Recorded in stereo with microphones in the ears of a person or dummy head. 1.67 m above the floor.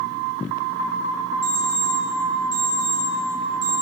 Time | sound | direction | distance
1.4 | an alarm clock | 20° right (ahead or behind) | 2.5 m